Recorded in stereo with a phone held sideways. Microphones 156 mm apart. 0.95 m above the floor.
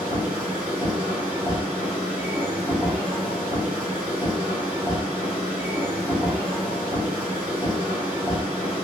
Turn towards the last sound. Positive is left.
turn(degrees=-10)  # may be behind; listen again after turning